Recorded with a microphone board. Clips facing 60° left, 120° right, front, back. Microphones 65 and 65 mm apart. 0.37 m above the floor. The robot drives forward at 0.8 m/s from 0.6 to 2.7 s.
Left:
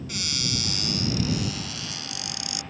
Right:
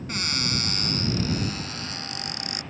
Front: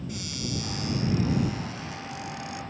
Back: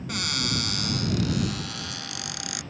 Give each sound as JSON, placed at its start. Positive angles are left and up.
{"t": 0.1, "sound": "a cupboard door", "azimuth_deg": -165}